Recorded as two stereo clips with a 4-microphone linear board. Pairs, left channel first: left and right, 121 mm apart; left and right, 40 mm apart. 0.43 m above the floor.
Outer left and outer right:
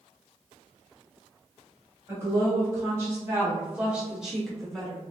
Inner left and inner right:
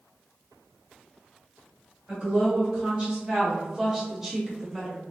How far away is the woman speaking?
About 1.3 m.